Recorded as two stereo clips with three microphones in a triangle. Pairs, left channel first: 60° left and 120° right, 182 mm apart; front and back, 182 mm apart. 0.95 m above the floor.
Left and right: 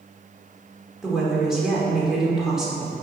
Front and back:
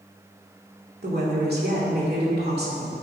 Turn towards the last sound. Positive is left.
turn(degrees=155)